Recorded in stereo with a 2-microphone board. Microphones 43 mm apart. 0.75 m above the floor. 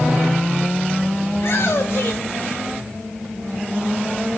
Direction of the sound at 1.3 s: 60° left (ahead or behind).